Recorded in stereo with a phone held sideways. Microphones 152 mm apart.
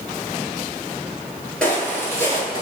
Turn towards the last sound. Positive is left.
turn(degrees=25)  # may be behind; listen again after turning